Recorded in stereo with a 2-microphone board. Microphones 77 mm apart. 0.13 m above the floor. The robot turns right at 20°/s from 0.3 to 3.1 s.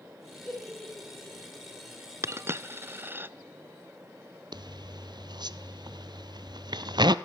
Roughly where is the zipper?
Right.